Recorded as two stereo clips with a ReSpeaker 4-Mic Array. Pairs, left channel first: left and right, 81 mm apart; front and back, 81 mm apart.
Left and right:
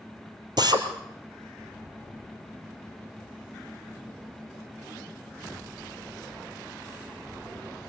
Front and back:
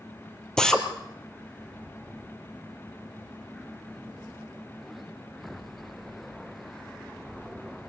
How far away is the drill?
About 2 m.